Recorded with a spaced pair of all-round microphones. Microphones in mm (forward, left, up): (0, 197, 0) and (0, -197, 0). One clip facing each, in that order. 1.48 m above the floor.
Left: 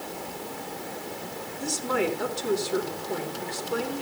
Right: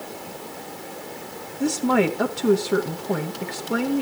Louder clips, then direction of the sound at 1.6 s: Right 8 dB; 80° right.